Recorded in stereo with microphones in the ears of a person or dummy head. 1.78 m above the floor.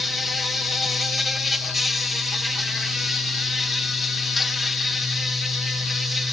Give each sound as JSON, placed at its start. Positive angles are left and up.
{"t": 0.0, "sound": "an insect", "side_deg": 0}